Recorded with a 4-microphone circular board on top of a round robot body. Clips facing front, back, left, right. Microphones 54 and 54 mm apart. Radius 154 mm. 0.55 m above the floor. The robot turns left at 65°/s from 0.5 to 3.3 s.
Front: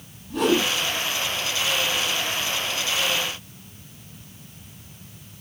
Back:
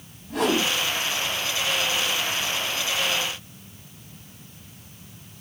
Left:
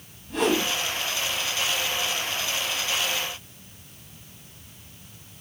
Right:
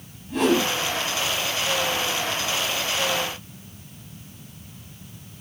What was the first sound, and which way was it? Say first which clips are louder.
A whoosh: front 2 dB, right 3 dB; straight behind.